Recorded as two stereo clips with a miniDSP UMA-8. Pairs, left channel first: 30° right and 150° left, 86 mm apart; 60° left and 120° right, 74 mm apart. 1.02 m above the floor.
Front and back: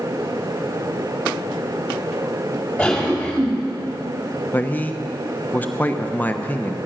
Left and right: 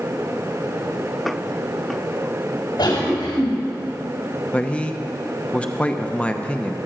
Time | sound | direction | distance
2.8 | a cough | 55° left | 4.5 m
4.5 | a man speaking | 5° left | 0.8 m